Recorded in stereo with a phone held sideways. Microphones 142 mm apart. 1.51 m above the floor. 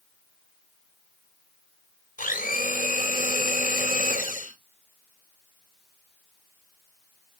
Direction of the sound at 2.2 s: 80° left.